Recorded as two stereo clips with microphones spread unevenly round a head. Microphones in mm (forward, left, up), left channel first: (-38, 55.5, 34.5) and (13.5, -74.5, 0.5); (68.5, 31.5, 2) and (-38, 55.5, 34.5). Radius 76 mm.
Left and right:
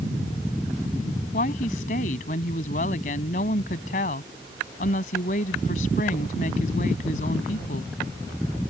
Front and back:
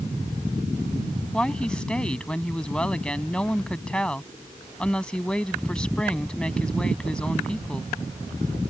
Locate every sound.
1.3 s a woman speaking: 70° left